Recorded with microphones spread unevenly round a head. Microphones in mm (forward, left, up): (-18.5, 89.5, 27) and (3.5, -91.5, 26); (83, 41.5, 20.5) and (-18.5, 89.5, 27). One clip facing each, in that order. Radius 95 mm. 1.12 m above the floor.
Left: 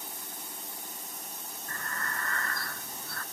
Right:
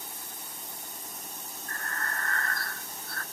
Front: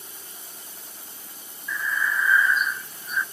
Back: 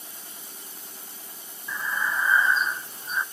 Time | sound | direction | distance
1.7 | breathing | 90° left | 0.8 m